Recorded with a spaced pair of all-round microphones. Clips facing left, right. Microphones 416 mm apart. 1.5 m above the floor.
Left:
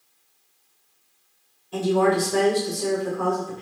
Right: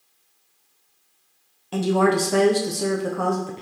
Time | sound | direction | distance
1.7 | a woman speaking | 75° right (ahead or behind) | 0.7 m